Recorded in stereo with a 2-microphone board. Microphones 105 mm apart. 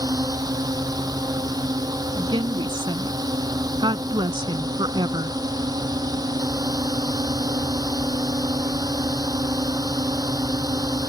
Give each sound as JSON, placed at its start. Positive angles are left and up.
{"t": 0.0, "sound": "a drone", "side_deg": -35}
{"t": 2.2, "sound": "a woman speaking", "side_deg": -50}